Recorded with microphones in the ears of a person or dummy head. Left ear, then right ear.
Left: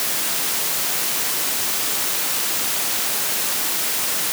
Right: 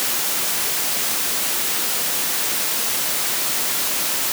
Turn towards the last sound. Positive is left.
No sound to turn to.